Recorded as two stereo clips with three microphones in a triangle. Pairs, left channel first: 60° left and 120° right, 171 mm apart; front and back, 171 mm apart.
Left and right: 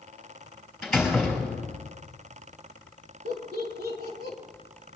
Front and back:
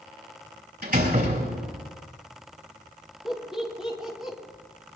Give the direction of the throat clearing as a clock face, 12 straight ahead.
No throat clearing in this recording.